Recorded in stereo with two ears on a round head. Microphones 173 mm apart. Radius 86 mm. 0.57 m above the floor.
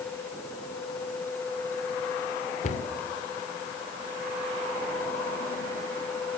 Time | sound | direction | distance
2.6 | a cupboard door | 40° left (ahead or behind) | 1.9 m